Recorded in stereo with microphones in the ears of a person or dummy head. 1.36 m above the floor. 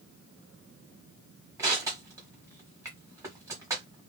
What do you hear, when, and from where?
1.6 s crushing: 20° right (ahead or behind), 1.0 m